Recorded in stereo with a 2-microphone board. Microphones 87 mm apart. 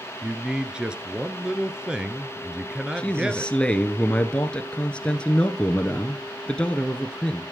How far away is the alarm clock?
No alarm clock in this recording.